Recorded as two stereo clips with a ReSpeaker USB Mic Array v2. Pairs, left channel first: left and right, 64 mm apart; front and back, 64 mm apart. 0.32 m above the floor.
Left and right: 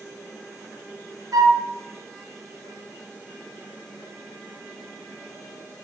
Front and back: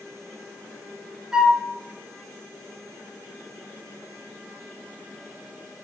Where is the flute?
105° right, 1.1 m.